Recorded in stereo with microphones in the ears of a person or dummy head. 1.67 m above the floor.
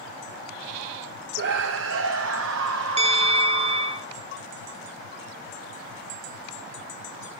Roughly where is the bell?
Right.